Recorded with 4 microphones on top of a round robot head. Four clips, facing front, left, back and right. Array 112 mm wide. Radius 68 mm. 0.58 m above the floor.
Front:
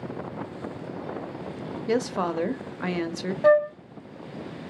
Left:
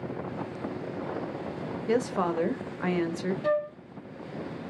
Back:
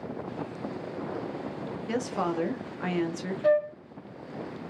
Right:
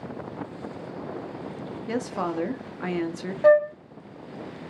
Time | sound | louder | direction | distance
1.9 | a woman speaking | left 2 dB, front 4 dB | 15° left | 0.8 m
3.4 | a flute | right 12 dB, front 5 dB | 55° right | 0.7 m